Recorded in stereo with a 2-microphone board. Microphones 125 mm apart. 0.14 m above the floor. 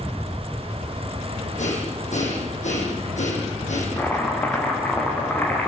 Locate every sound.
1.6 s breathing: 75° left (ahead or behind), 7 m
4.0 s chopping: 15° left (ahead or behind), 5.5 m